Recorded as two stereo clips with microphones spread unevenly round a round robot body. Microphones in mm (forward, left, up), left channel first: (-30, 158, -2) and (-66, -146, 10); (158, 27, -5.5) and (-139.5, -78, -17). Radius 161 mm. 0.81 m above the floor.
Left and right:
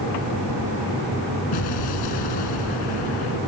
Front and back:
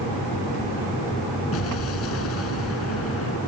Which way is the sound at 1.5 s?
70° left.